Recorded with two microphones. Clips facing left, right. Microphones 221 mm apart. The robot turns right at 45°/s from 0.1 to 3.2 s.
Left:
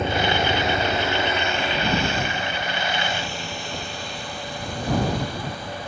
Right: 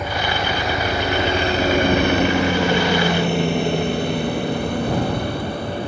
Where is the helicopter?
25° left (ahead or behind); by 5.9 s 60° right (ahead or behind).